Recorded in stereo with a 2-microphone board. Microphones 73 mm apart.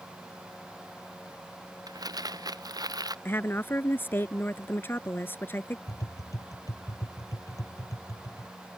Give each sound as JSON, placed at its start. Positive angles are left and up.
{"t": 1.9, "sound": "crumpling", "side_deg": -60}
{"t": 3.2, "sound": "a woman speaking", "side_deg": 30}
{"t": 5.9, "sound": "tapping", "side_deg": 50}